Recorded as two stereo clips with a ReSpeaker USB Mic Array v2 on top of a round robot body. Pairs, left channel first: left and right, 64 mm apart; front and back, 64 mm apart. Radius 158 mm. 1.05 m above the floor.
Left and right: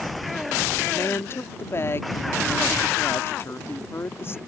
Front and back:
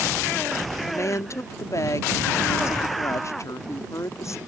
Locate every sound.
0.8 s a woman speaking: 40° left